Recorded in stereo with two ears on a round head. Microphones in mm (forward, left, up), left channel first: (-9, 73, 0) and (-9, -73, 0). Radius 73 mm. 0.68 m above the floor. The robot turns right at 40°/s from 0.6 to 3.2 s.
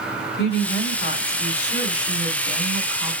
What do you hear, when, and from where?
0.4 s a woman speaking: 80° left, 2 m; by 3.1 s 175° right, 2 m